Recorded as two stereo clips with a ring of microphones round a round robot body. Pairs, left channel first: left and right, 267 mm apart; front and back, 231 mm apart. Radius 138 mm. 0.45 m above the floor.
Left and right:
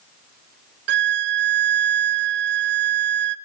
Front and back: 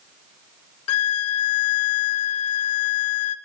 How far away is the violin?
About 0.5 m.